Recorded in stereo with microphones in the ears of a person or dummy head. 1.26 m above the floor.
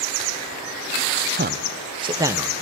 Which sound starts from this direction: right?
A man speaking, at 1.4 s.